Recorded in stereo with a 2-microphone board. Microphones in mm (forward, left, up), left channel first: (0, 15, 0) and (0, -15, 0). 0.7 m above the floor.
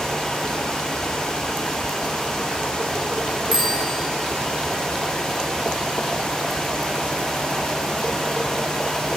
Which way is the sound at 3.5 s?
15° right (ahead or behind).